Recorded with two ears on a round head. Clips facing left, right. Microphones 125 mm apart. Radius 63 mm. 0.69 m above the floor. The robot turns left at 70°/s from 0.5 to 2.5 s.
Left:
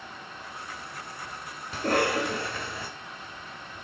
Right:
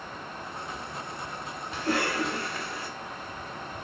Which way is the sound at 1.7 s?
150° left.